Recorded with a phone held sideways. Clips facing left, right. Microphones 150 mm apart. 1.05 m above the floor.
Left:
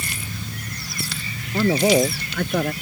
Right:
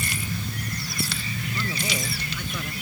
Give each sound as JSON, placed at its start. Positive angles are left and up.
{"t": 1.5, "sound": "a man speaking", "side_deg": 60}